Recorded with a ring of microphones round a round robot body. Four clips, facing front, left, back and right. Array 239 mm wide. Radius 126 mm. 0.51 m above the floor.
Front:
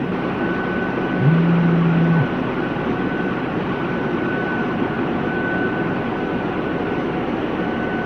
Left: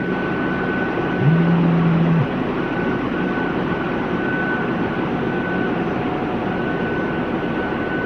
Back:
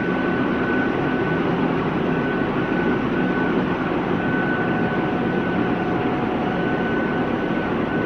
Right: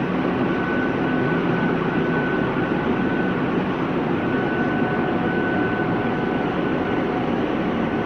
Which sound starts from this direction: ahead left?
A phone buzzing, at 1.2 s.